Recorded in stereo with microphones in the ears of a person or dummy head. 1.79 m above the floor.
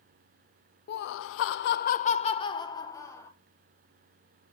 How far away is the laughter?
About 0.7 m.